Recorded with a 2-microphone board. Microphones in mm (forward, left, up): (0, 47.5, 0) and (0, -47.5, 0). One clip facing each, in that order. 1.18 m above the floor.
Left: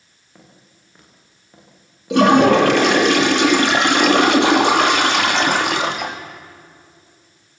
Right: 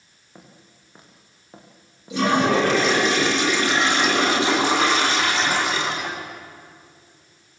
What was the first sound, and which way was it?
Footsteps, 20° right (ahead or behind).